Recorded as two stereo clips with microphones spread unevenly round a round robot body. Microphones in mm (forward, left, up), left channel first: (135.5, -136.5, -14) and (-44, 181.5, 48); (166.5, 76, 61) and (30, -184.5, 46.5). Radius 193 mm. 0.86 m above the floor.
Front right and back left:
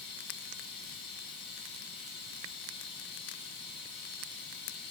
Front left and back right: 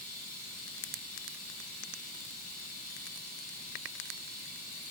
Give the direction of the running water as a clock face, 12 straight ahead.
11 o'clock.